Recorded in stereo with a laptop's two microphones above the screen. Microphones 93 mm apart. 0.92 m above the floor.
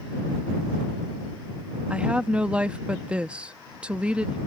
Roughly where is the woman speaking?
Centre.